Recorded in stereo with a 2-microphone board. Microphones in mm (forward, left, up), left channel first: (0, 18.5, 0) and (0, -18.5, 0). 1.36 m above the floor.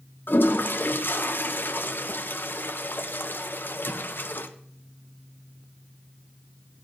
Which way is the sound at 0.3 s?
60° left (ahead or behind).